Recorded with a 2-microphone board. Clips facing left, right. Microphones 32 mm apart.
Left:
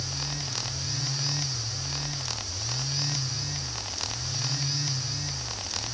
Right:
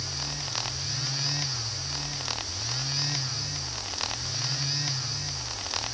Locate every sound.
Only background noise.